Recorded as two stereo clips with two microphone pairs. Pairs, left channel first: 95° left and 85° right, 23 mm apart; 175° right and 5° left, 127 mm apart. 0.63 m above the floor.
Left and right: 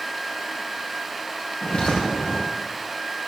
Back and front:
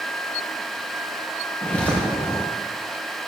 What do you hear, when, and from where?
1.6 s footsteps: 110° left, 4.5 m